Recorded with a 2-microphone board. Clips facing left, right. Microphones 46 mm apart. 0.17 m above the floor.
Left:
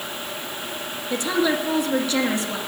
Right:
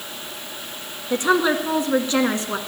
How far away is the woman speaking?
About 2 m.